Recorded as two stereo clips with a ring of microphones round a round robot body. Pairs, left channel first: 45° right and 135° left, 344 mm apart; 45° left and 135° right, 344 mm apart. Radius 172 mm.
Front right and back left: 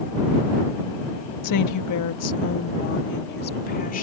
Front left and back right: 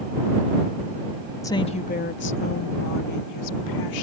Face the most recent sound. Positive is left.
turn(degrees=20)